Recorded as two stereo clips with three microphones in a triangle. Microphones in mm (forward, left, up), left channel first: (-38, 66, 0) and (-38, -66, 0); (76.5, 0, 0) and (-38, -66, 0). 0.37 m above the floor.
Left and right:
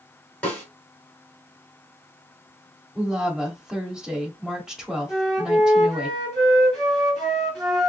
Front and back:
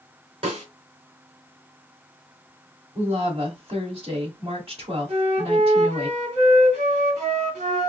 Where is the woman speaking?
175° right, 1.7 m.